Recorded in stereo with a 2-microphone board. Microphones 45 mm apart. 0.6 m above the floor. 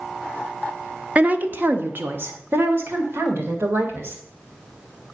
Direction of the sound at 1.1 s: 30° right (ahead or behind).